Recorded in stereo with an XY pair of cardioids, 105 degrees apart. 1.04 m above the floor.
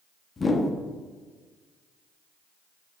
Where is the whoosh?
30° left, 0.8 m.